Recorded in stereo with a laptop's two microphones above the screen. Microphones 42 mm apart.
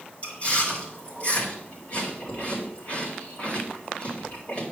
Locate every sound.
0.2 s chewing: 40° left (ahead or behind), 4.5 m